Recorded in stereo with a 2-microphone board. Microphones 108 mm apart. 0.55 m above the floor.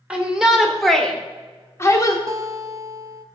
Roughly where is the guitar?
Right.